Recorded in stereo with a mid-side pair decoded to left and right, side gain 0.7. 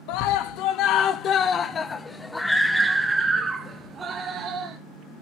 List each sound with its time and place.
0.1 s a scream: 70° left, 1.9 m; by 4.8 s 35° right, 2.5 m